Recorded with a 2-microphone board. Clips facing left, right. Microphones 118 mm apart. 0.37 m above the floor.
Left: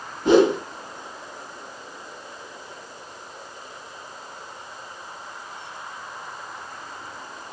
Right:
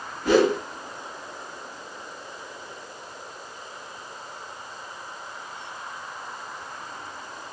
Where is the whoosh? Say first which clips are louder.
Left 3 dB; 25° left (ahead or behind), 0.5 m.